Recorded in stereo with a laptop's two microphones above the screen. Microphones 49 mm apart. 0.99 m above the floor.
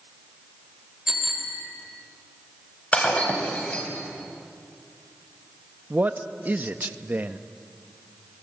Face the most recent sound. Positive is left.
turn(degrees=-35)  # may be behind; listen again after turning